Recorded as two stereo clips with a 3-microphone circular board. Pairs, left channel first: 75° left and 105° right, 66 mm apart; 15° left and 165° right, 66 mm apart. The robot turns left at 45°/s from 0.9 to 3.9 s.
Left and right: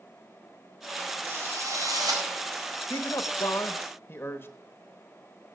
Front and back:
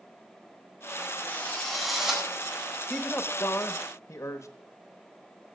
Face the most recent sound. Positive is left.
turn(degrees=35)